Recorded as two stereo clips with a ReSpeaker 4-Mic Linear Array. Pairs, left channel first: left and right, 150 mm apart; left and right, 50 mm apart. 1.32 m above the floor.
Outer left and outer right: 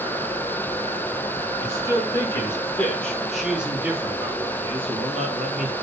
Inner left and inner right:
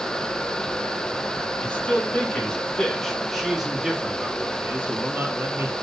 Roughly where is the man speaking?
Left.